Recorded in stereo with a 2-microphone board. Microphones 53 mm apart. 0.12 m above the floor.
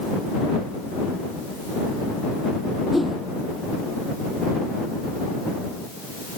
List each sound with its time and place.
2.9 s a whoosh: 5° right (ahead or behind)